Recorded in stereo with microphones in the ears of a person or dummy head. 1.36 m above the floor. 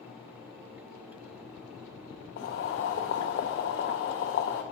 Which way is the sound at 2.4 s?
50° left (ahead or behind).